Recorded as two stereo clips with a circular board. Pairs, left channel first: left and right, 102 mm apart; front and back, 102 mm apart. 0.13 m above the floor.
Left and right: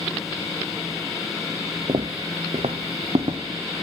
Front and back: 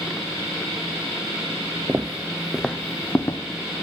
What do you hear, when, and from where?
1.9 s footsteps: 115° right, 0.7 m; by 3.4 s 65° right, 1.1 m